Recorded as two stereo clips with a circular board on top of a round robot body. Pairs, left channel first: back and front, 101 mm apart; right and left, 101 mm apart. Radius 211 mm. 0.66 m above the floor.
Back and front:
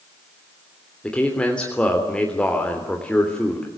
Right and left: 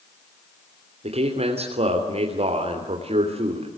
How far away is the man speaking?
About 3 m.